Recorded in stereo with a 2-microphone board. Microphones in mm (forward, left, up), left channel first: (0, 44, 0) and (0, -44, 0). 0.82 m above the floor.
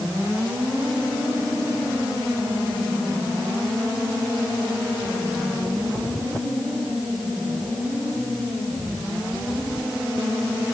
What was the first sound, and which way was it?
Only background noise.